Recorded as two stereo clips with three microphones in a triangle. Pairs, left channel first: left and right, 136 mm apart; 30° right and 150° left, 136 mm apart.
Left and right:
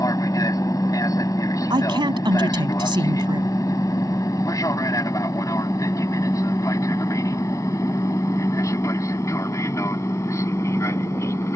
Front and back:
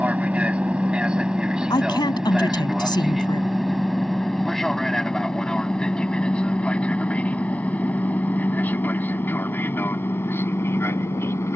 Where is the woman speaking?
60° right.